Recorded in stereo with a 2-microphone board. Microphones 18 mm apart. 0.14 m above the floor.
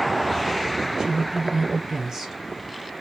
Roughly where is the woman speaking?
Right.